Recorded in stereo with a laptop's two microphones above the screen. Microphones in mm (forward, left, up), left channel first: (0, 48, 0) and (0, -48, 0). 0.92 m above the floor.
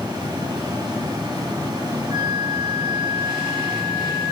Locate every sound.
0.0 s a fan: 45° right (ahead or behind), 3 m
2.1 s a flute: 50° right (ahead or behind), 1.8 m